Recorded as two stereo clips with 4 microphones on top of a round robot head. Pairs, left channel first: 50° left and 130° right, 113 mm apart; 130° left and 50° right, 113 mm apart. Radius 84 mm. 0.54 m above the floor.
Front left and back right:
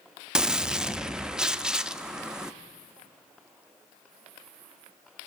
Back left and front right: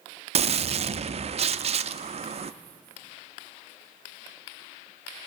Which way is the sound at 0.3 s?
45° right.